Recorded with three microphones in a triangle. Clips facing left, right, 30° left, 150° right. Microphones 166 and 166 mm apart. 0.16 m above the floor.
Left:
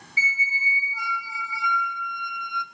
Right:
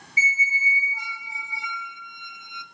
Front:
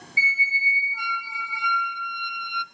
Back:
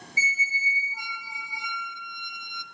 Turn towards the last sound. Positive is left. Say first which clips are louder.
# right 2 dB, front 3 dB
turn(degrees=-145)